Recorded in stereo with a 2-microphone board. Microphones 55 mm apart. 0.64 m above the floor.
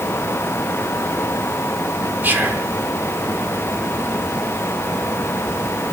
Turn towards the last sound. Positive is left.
turn(degrees=-35)  # may be behind; listen again after turning